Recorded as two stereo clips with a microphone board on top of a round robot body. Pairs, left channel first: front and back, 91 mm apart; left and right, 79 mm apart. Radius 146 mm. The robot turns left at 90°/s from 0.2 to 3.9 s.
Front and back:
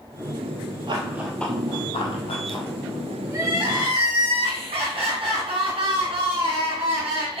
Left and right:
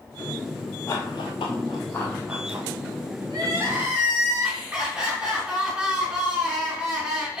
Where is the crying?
115° right, 4 m; by 7.4 s 170° right, 4 m.